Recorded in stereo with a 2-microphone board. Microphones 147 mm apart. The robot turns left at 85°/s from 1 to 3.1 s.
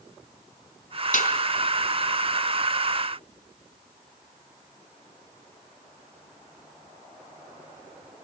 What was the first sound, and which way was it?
A snare drum, 65° left (ahead or behind).